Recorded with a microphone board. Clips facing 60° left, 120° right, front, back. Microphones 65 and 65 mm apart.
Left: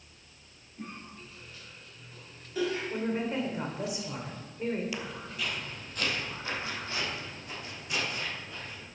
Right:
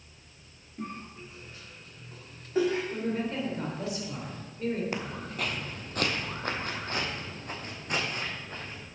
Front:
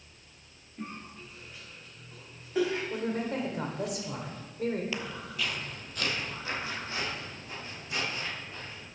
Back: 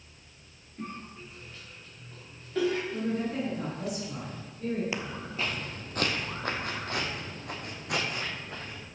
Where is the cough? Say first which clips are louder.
Right 4 dB, back 1 dB; 75° right, 1.6 m.